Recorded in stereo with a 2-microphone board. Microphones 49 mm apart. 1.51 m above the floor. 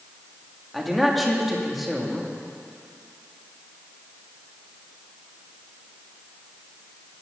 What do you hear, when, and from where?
0.7 s a man speaking: centre (ahead or behind), 2.5 m